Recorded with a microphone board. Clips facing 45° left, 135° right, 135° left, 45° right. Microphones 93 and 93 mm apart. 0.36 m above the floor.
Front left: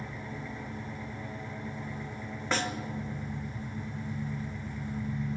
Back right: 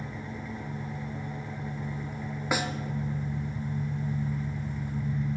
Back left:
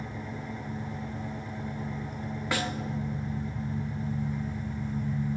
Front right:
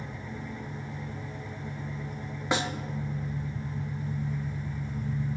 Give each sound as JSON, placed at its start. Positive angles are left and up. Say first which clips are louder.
{"t": 0.0, "sound": "an engine running", "louder": "back right 2 dB, back left 2 dB", "azimuth_deg": 155, "distance_m": 1.9}
{"t": 2.5, "sound": "a snare drum", "louder": "back right 1 dB, front right 2 dB", "azimuth_deg": -75, "distance_m": 0.5}